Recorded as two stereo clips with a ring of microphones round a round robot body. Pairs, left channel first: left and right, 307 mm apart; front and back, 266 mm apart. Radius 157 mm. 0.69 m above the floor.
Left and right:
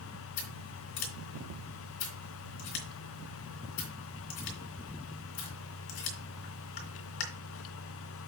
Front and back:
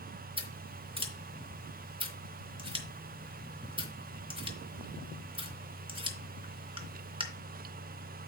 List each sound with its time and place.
0.4 s scissors: 110° left, 3 m